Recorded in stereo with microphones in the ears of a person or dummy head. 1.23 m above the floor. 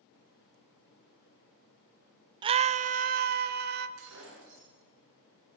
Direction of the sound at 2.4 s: 25° right (ahead or behind).